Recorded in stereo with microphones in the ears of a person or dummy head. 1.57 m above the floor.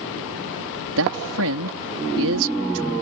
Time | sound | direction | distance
1.0 | a man speaking | 75° right (ahead or behind) | ?